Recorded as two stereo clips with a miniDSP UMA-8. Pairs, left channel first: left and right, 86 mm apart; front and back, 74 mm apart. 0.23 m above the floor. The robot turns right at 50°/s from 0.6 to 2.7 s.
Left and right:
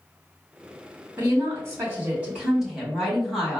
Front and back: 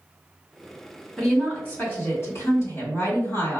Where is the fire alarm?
No fire alarm in this recording.